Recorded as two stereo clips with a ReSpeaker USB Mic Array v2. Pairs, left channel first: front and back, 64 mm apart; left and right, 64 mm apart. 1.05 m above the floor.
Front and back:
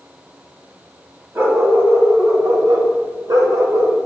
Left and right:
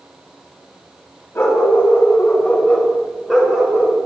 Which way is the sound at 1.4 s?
130° left.